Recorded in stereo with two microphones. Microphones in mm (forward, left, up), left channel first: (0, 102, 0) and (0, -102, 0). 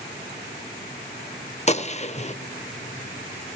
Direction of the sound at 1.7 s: 35° left (ahead or behind).